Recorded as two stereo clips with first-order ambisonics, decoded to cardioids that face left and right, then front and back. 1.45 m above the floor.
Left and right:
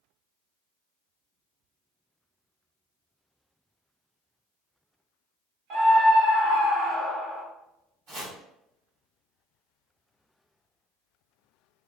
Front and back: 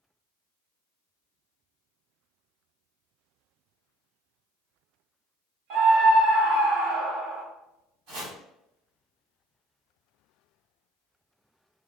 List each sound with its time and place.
5.7 s a scream: 145° right, 0.9 m
8.1 s chopping: 150° right, 1.8 m